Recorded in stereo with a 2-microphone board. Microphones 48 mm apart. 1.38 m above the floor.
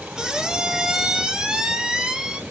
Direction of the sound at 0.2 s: 15° right (ahead or behind).